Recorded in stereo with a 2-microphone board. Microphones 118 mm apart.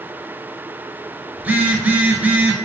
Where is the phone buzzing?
15° right (ahead or behind), 0.5 m.